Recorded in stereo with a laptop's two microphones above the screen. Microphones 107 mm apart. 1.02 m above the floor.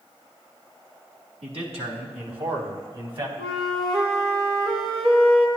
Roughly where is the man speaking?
Right.